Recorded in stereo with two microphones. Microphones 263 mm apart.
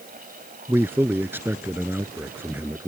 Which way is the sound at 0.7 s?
10° right (ahead or behind).